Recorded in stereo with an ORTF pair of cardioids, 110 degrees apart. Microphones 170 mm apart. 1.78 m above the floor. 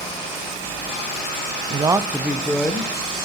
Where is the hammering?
I don't hear hammering.